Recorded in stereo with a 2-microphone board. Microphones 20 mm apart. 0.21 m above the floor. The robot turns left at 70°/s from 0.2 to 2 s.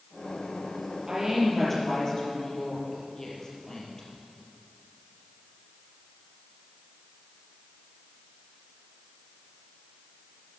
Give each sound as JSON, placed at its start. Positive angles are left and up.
{"t": 1.1, "sound": "a woman speaking", "azimuth_deg": -145, "distance_m": 4.5}